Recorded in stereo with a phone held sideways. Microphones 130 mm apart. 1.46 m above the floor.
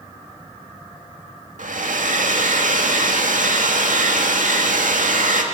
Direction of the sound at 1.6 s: 80° right.